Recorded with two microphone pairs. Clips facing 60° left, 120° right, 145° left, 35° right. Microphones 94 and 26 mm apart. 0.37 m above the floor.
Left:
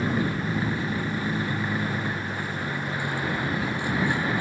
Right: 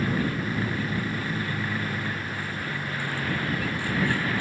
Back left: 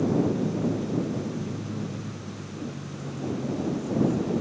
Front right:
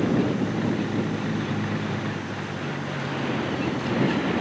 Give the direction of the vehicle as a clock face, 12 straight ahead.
12 o'clock.